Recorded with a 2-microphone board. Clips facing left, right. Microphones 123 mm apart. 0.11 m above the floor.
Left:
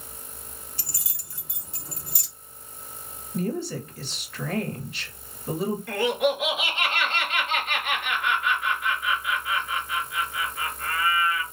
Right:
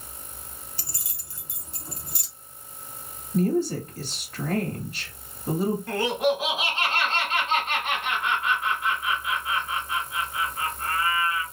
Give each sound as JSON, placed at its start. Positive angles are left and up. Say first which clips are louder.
{"t": 0.8, "sound": "keys jangling", "louder": "even", "side_deg": -35, "distance_m": 1.6}
{"t": 3.3, "sound": "a woman speaking", "louder": "right 5 dB", "side_deg": -40, "distance_m": 1.4}
{"t": 5.9, "sound": "laughter", "louder": "left 3 dB", "side_deg": -30, "distance_m": 1.7}